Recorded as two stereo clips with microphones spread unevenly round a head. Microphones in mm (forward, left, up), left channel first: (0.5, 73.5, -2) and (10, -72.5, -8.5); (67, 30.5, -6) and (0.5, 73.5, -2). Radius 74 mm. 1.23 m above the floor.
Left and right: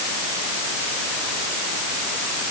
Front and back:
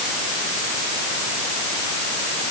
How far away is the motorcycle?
No motorcycle in this recording.